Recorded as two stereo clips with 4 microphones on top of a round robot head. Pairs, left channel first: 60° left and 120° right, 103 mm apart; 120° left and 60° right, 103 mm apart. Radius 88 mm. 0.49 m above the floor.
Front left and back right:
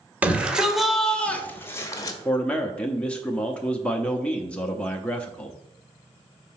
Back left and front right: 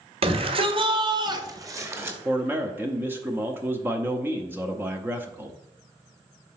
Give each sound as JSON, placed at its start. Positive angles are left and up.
{"t": 0.2, "sound": "a shout", "azimuth_deg": -45, "distance_m": 1.7}
{"t": 2.2, "sound": "a man speaking", "azimuth_deg": -10, "distance_m": 0.9}